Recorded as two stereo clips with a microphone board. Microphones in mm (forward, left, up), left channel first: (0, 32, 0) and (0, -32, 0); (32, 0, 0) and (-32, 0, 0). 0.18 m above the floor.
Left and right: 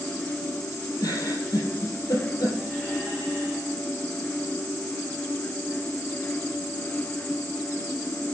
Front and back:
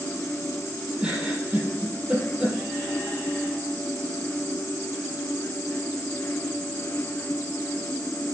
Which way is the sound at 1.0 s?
110° left.